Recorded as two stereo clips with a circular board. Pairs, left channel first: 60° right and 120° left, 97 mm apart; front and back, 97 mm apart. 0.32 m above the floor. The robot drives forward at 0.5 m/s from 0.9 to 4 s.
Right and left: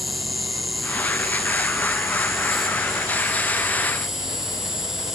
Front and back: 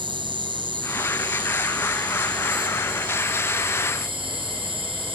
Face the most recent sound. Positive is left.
turn(degrees=-155)